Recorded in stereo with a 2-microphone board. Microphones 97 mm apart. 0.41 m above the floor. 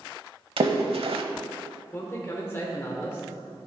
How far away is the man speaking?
About 1.2 m.